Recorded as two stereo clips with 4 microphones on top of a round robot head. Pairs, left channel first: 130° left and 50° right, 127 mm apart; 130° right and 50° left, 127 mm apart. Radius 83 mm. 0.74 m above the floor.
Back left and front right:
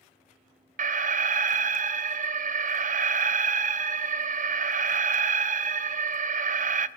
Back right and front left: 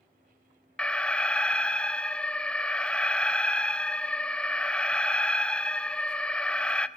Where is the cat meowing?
No cat meowing in this recording.